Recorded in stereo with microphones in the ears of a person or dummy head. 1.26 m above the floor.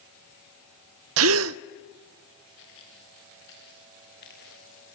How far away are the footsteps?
About 8 m.